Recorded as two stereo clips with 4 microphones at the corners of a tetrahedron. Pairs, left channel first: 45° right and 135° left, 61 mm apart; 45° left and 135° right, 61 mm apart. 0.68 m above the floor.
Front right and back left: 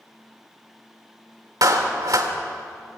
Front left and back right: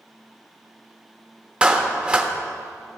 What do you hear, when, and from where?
1.6 s a clap: 155° left, 1.4 m